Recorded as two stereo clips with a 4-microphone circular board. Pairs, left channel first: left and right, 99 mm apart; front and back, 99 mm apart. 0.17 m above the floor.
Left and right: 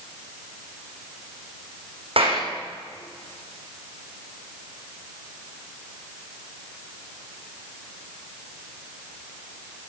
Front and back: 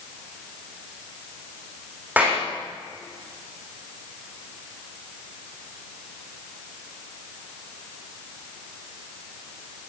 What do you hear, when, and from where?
2.2 s a clap: 105° right, 9 m